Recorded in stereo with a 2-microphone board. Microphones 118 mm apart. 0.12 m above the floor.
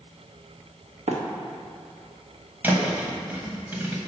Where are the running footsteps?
80° right, 2 m.